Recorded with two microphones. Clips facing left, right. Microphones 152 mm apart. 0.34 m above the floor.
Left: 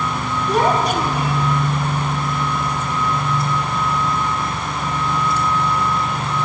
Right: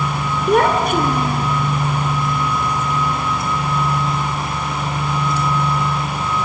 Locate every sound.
0.5 s a child speaking: 65° right (ahead or behind), 2.5 m; by 1.5 s 40° right (ahead or behind), 3 m